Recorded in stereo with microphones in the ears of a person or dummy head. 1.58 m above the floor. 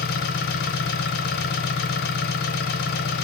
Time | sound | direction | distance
0.0 | an engine running | 45° left (ahead or behind) | 0.7 m